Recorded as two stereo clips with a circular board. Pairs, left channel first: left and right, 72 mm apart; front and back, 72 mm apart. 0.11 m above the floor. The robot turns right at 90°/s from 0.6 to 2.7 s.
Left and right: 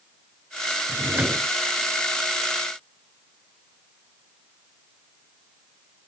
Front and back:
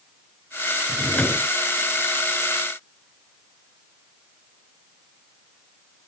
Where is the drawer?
80° right; by 1.5 s 25° right.